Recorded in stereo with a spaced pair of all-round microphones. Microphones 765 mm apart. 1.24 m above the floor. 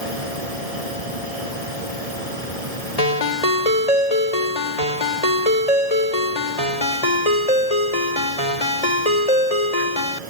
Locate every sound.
0.0 s a machine running: 50° right (ahead or behind)
3.0 s a ringtone: 50° left (ahead or behind)